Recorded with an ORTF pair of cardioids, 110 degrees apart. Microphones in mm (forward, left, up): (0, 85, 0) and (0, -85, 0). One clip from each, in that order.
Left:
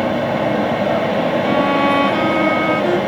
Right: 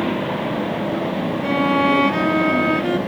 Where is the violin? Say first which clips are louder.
Even; 5° left, 0.5 m.